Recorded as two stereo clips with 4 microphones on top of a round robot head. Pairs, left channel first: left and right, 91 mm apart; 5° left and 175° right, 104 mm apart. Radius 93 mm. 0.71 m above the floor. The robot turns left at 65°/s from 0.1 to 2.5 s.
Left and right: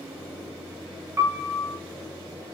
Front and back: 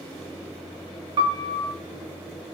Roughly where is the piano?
Behind right.